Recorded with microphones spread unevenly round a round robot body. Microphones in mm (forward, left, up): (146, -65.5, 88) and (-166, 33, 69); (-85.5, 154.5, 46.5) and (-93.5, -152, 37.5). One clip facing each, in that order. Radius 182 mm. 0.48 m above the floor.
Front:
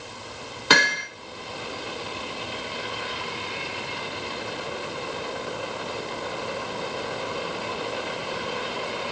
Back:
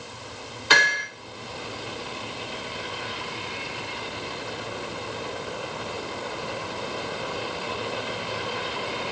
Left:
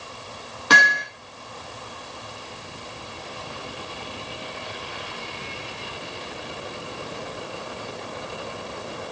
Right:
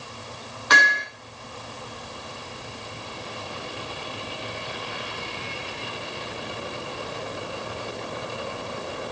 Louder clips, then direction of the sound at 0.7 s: Front 4 dB, left 3 dB; 25° left.